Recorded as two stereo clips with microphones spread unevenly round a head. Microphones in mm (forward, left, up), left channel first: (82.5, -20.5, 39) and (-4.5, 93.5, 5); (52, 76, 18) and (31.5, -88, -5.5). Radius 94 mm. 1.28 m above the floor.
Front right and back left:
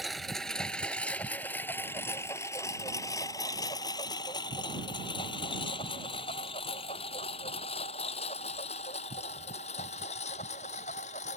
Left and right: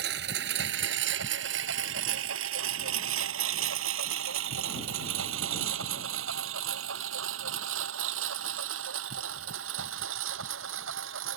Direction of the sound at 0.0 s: 140° right.